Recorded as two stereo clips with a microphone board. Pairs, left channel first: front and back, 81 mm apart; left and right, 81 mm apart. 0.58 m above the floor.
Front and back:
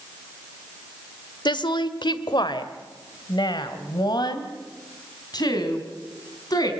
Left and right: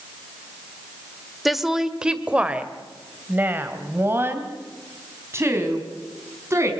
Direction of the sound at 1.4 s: Straight ahead.